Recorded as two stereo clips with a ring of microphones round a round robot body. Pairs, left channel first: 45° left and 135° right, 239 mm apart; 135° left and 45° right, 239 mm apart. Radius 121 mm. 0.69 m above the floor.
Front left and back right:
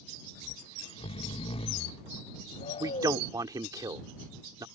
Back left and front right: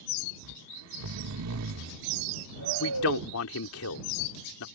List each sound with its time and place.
0.4 s snoring: 20° right
2.8 s a man speaking: 150° left